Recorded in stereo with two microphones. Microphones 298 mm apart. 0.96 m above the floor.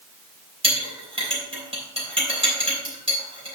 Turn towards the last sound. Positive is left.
turn(degrees=-20)  # may be behind; listen again after turning